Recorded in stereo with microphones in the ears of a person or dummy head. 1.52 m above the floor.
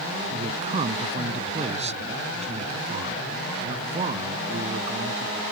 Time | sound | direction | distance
0.3 | a man speaking | 35° right (ahead or behind) | ?